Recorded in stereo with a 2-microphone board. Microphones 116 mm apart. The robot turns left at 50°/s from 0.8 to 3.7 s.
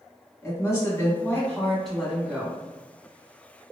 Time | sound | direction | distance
0.4 | a woman speaking | 55° left | 1.3 m